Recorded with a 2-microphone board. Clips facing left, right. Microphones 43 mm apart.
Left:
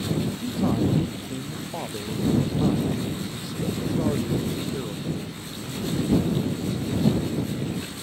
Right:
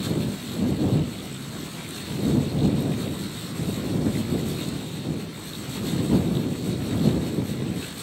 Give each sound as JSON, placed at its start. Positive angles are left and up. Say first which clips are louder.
{"t": 0.4, "sound": "a man speaking", "louder": "left 3 dB", "side_deg": 75}